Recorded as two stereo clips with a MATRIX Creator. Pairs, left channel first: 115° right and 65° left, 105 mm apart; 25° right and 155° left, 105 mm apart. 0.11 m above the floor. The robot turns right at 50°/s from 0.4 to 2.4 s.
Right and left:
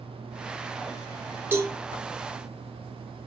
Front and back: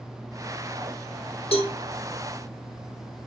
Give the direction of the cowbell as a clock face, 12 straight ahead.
12 o'clock.